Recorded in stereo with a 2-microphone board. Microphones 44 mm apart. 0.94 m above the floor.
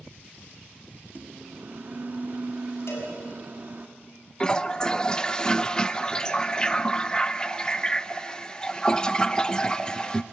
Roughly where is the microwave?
Right.